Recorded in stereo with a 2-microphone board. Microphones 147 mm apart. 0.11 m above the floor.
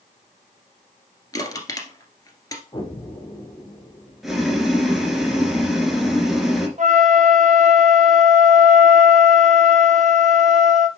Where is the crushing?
25° left (ahead or behind), 1.7 m.